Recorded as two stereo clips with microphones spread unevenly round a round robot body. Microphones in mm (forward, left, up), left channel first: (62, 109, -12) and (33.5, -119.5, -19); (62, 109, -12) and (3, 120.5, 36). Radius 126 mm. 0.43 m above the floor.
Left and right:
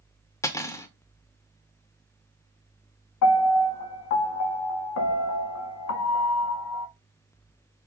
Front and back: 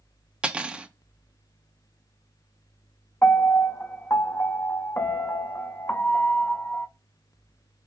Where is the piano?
60° left, 0.8 m.